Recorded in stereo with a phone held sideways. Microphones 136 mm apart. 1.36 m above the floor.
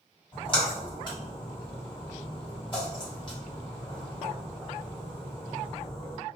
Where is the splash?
35° left (ahead or behind), 1.7 m.